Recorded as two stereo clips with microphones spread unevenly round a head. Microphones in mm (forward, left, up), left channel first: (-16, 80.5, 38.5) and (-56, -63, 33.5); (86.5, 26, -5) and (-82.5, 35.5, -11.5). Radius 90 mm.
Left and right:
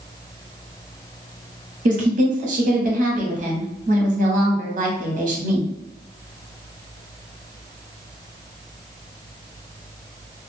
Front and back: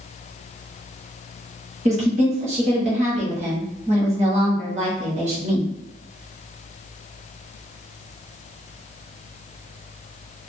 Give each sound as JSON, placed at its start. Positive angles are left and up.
{"t": 1.9, "sound": "a woman speaking", "azimuth_deg": -130, "distance_m": 1.1}